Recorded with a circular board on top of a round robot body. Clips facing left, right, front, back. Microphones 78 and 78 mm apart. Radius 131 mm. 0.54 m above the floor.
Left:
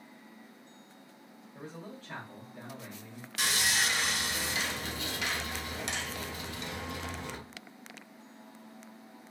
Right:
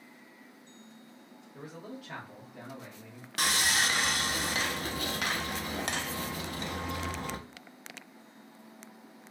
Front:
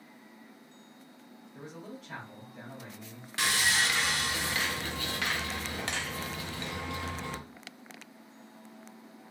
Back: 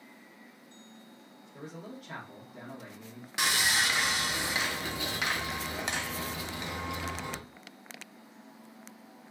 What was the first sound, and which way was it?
A man speaking, 170° right.